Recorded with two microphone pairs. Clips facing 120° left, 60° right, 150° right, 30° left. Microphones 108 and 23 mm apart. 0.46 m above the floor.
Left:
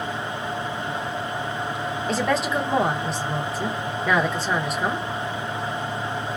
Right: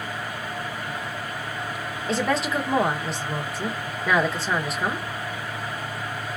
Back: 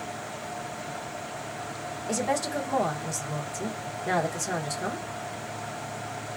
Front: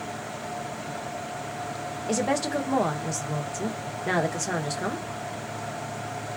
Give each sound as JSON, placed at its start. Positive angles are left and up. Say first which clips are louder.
{"t": 2.1, "sound": "a woman speaking", "louder": "even, front 2 dB", "azimuth_deg": 35, "distance_m": 0.7}